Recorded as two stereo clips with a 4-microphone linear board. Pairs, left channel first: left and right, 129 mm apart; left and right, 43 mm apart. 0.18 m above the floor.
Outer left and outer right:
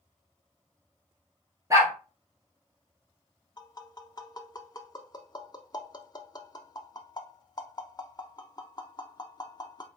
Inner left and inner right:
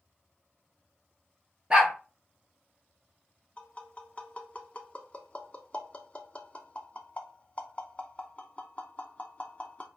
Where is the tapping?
30° left (ahead or behind), 0.7 m.